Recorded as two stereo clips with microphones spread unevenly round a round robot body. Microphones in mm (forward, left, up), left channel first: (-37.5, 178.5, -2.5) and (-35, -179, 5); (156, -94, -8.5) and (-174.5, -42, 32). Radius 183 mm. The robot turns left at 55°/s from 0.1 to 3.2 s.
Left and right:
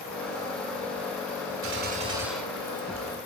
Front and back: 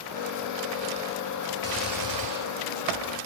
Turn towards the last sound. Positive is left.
turn(degrees=135)